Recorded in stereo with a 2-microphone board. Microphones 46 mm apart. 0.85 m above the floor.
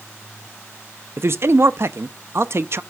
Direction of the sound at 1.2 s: 60° right (ahead or behind).